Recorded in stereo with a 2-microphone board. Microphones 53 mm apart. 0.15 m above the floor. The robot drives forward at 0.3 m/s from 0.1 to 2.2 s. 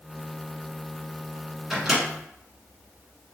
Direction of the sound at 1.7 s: 5° right (ahead or behind).